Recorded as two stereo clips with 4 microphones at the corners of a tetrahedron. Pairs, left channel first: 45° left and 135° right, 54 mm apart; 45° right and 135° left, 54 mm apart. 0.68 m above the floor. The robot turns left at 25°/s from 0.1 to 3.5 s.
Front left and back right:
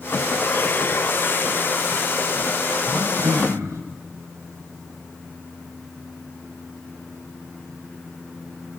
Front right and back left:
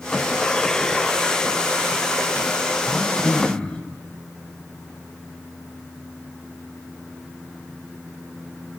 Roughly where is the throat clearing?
Right.